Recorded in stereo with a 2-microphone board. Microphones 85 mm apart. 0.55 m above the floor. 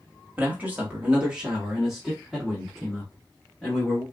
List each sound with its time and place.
0.4 s a man speaking: 20° right (ahead or behind), 1.1 m; by 4.0 s 5° left (ahead or behind), 1.9 m